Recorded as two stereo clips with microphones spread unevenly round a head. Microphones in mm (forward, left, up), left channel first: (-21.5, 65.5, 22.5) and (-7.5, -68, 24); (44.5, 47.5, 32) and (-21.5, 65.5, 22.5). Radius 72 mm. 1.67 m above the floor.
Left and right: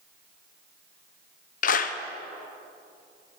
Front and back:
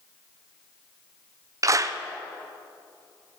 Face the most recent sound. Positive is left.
turn(degrees=125)